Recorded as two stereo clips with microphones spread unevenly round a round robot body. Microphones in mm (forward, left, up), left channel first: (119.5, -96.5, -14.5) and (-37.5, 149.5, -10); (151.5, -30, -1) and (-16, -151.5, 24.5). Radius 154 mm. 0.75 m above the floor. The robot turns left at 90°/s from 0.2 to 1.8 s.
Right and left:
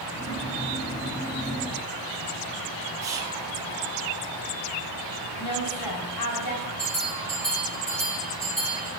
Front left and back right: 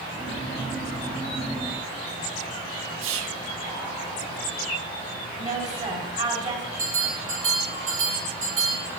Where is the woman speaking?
90° right, 6.5 m.